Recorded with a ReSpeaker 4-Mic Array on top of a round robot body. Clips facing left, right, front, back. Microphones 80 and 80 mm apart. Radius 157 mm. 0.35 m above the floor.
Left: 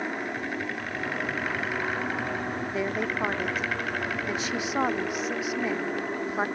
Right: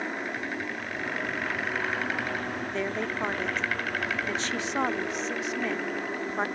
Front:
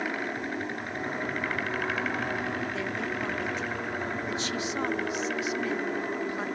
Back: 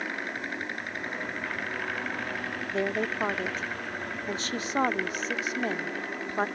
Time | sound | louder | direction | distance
0.0 | an aircraft | left 1 dB, front 2 dB | 25° left | ?
2.7 | a woman speaking | left 2 dB, back 3 dB | 165° left | ?